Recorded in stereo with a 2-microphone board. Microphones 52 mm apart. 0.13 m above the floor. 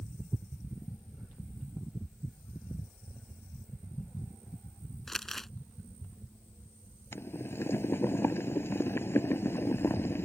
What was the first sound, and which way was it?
Crumpling, 5° left (ahead or behind).